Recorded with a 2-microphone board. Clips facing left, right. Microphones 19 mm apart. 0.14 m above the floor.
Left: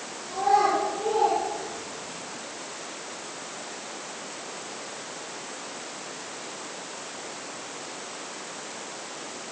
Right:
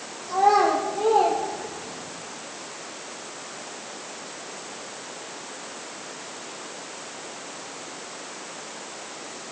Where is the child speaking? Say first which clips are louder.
Right 3 dB; 45° right (ahead or behind), 4.5 m; by 2.2 s 55° right (ahead or behind), 4.5 m.